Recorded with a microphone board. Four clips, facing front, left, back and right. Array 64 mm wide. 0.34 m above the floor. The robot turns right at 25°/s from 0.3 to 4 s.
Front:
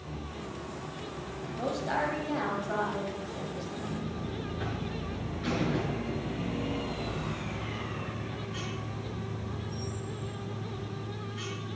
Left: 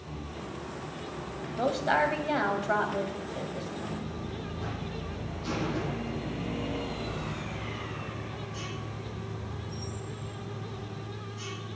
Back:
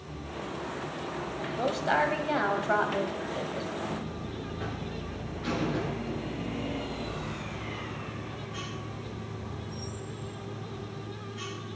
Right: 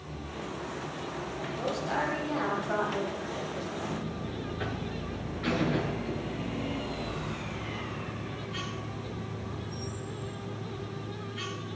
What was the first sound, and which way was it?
A woman speaking, 125° left.